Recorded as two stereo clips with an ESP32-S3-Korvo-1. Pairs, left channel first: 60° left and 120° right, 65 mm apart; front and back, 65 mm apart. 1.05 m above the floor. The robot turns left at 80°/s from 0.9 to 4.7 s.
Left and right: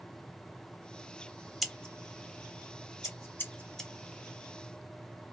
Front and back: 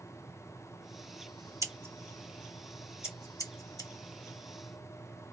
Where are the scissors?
150° left, 1.1 m; by 3.9 s 30° right, 1.1 m.